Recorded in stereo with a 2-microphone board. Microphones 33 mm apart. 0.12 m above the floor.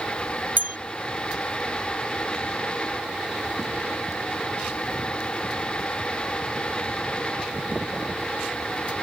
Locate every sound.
0.6 s a bell: 60° right (ahead or behind)